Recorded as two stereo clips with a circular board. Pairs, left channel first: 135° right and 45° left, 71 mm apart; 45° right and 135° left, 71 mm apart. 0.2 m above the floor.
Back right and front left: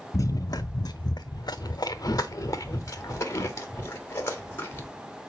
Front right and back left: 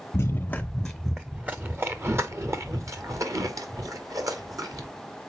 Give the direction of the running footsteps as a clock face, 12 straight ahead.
3 o'clock.